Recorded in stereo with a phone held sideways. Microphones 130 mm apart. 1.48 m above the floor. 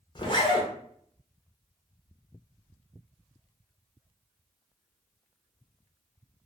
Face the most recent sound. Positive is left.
turn(degrees=35)  # may be behind; listen again after turning